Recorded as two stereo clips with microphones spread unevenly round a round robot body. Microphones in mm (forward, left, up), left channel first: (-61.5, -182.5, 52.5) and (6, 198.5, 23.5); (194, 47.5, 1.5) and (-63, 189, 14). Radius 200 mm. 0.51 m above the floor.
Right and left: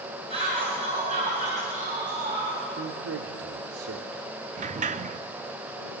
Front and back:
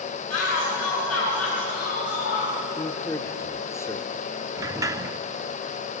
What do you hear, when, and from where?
0.3 s a shout: 5° left, 7.5 m; by 2.6 s 10° left, 8.5 m
2.7 s a man speaking: 45° left, 1.5 m
4.6 s a sliding door: 85° left, 0.5 m